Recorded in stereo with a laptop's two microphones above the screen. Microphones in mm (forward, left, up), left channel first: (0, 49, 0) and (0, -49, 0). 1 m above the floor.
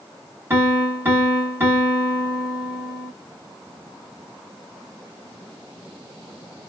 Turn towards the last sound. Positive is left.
turn(degrees=-25)  # may be behind; listen again after turning